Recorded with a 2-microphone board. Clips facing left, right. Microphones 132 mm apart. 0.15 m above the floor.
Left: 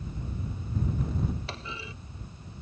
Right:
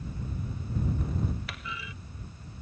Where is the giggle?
I don't hear a giggle.